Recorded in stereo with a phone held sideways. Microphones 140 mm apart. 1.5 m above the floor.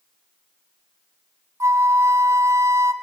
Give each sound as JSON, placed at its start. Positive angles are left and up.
{"t": 1.6, "sound": "a flute", "side_deg": -20, "distance_m": 0.8}